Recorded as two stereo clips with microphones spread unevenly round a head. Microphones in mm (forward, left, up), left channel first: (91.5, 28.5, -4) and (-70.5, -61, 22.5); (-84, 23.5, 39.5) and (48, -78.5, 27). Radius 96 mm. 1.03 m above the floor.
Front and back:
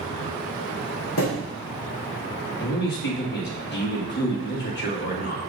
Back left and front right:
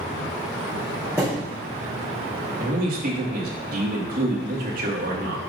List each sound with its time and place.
1.2 s a thud: 40° left, 4 m
2.6 s a man speaking: straight ahead, 1.8 m